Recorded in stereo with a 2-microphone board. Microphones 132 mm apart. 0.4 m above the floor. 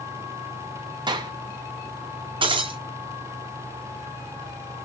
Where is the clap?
35° right (ahead or behind), 2 m.